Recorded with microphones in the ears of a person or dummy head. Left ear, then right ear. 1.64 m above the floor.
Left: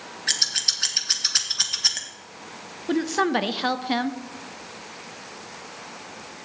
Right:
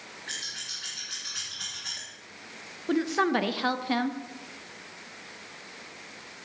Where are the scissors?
65° left (ahead or behind), 1.2 m.